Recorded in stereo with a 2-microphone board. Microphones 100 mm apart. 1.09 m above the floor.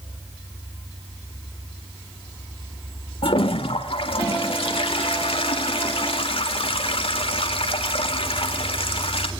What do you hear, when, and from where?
3.2 s a toilet flushing: 70° left (ahead or behind), 1.7 m